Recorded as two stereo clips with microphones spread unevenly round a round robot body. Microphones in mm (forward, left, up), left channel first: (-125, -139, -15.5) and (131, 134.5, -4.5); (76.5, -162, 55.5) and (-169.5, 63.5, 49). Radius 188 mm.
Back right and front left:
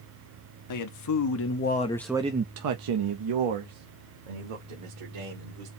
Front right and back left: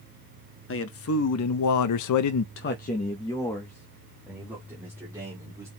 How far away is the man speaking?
About 1.2 m.